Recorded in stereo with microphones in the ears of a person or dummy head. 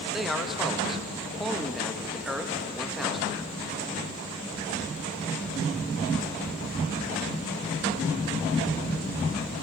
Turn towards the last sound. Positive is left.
turn(degrees=-5)  # may be behind; listen again after turning